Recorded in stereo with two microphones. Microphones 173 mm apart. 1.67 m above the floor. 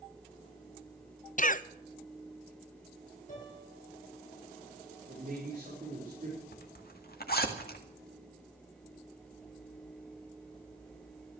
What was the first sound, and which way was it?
A cough, 50° left (ahead or behind).